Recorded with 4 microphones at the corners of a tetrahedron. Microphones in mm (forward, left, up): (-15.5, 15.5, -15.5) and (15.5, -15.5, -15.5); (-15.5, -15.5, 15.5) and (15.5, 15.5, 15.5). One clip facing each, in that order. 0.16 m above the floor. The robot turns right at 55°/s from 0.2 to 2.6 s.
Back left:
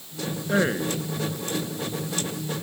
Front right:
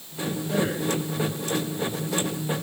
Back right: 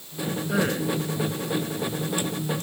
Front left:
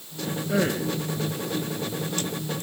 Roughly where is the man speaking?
Behind left.